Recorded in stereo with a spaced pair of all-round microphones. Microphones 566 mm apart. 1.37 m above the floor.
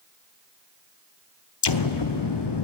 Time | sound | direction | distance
1.6 | an explosion | 50° left (ahead or behind) | 0.6 m